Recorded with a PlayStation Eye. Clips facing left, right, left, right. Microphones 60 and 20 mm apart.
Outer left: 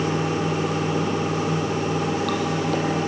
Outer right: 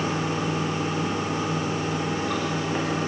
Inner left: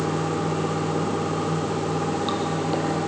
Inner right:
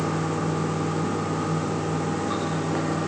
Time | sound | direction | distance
0.0 | running water | 75° left (ahead or behind) | 5.5 m